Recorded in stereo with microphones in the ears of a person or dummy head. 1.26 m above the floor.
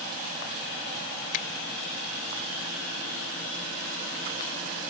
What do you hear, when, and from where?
1.3 s a finger snap: 55° left (ahead or behind)